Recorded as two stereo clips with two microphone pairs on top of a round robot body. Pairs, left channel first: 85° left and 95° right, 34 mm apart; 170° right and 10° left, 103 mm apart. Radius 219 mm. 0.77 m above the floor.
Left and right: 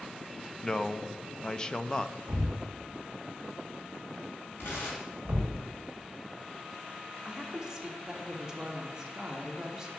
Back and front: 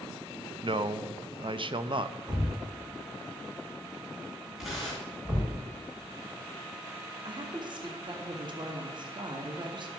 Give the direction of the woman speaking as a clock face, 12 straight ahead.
1 o'clock.